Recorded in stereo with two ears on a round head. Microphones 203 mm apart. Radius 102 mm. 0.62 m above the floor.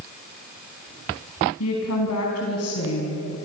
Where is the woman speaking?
80° left, 5 m.